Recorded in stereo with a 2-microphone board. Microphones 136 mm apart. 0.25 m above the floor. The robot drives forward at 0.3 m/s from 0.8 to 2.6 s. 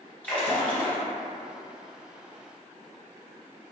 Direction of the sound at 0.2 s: 10° left (ahead or behind).